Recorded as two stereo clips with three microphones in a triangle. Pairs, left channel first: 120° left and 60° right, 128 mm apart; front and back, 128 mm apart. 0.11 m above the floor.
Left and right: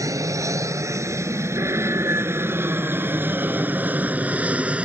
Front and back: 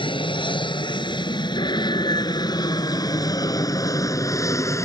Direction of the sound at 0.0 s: 10° right.